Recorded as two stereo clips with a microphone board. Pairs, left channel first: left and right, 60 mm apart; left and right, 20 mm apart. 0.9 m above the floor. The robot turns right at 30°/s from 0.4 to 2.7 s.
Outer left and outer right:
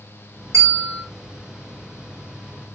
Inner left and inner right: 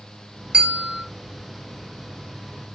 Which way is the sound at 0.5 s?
55° right (ahead or behind).